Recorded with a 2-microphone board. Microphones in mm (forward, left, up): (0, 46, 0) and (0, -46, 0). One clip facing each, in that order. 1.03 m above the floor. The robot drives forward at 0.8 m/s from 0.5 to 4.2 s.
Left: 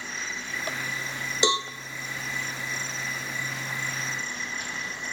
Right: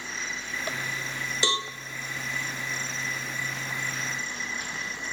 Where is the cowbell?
20° left (ahead or behind), 0.6 m; by 1.7 s 15° left (ahead or behind), 0.7 m.